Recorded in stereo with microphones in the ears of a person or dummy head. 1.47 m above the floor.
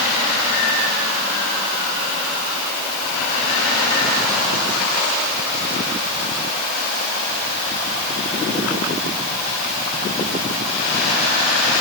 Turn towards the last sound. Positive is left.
No sound to turn to.